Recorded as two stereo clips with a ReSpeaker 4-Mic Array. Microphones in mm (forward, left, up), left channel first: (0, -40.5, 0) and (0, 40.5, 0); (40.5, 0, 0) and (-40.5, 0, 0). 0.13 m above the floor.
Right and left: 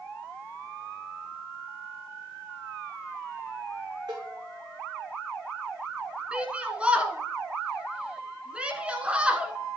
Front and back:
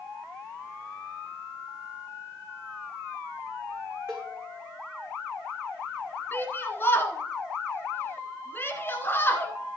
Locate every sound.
4.1 s a cowbell: 120° left, 3 m
6.3 s a shout: 30° left, 1.3 m